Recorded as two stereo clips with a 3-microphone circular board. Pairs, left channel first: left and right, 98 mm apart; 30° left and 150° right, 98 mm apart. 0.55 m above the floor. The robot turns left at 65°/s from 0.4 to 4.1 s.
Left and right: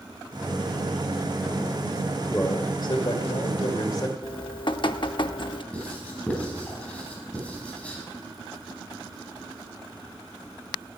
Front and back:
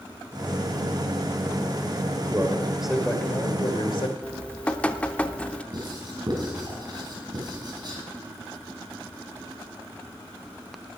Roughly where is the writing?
Behind.